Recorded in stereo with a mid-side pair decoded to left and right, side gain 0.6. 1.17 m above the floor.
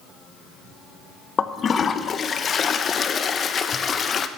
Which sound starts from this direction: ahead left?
A toilet flushing, at 1.4 s.